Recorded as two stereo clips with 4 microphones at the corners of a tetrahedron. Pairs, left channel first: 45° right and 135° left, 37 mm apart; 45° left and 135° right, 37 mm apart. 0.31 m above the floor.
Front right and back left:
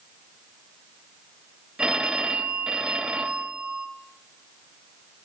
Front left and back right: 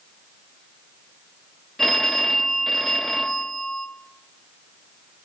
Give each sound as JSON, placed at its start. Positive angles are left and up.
{"t": 1.8, "sound": "a phone ringing", "azimuth_deg": 120, "distance_m": 0.9}